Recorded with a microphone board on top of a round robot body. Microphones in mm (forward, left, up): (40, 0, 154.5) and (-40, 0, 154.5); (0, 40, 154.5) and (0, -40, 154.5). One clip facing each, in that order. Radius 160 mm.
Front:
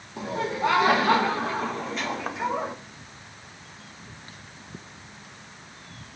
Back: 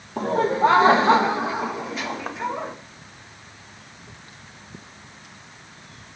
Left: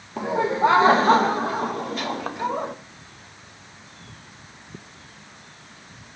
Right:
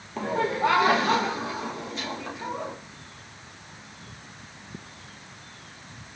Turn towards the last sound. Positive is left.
turn(degrees=85)